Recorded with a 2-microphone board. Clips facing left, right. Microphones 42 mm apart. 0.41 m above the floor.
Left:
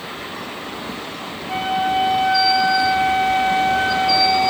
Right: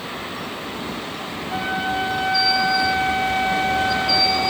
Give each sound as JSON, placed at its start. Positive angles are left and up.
{"t": 1.5, "sound": "a flute", "side_deg": 65, "distance_m": 1.1}